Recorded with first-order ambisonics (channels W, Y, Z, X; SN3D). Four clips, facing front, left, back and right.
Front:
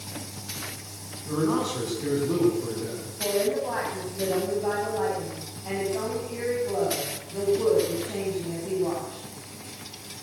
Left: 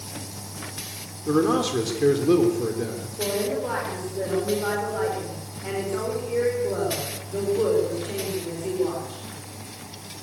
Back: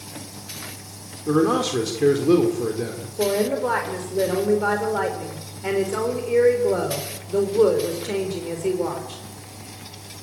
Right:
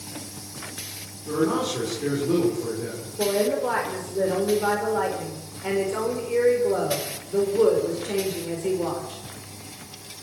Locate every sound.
1.3 s a man speaking: 150° left, 3.5 m
3.2 s a woman speaking: 170° right, 4.5 m